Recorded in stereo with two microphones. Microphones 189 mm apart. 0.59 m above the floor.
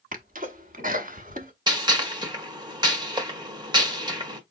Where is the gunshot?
25° right (ahead or behind), 1.2 m.